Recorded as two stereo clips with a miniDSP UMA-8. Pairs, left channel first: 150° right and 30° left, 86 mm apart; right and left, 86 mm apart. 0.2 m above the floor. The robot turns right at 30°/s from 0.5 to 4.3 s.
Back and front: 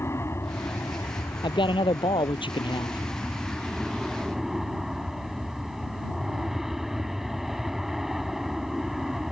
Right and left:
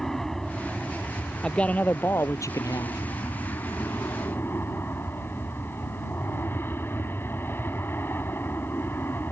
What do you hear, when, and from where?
0.0 s an aircraft: 170° right; by 9.3 s 55° right
1.4 s a man speaking: 170° right; by 3.0 s 120° right